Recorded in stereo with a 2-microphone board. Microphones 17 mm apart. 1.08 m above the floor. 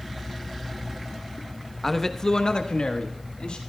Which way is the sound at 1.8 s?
10° left (ahead or behind).